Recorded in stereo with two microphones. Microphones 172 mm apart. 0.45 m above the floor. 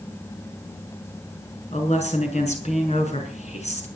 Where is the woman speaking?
40° left (ahead or behind), 6 m.